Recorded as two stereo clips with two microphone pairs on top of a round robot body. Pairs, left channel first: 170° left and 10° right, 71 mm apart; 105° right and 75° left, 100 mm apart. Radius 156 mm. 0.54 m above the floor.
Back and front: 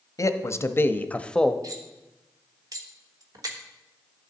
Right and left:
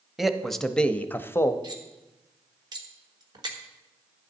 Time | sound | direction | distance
0.2 | a man speaking | 170° left | 1.0 m
1.6 | cutlery clinking | 25° left | 1.2 m